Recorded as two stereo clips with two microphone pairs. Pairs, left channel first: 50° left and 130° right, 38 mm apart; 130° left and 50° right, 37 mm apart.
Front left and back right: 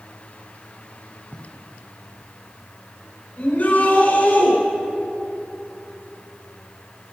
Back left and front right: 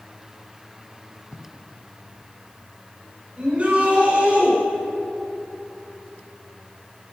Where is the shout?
5° left, 6 m.